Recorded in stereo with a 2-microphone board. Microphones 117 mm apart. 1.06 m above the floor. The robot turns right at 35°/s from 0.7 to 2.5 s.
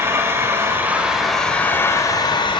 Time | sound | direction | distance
0.0 | an engine running | 20° right | 4 m